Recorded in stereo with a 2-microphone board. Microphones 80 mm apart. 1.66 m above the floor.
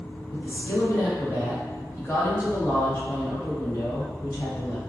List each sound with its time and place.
0.3 s a woman speaking: 30° left (ahead or behind), 1.2 m